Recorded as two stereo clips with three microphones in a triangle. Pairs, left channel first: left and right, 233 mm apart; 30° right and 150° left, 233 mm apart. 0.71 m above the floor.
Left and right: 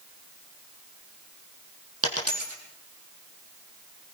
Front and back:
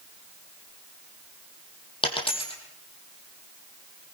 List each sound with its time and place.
2.0 s a dropped coin: 100° right, 5 m